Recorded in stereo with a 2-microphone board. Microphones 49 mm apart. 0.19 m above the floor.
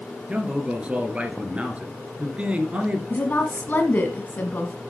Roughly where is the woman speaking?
Left.